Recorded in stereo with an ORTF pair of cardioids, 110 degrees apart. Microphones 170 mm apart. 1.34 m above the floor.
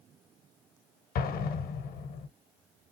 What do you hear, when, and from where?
1.1 s an explosion: 60° left, 0.8 m